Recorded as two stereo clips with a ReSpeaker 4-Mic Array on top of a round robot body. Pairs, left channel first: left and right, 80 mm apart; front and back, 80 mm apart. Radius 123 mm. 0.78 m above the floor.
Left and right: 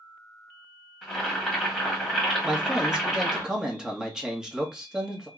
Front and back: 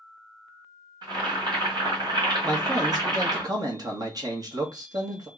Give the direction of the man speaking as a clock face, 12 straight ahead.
6 o'clock.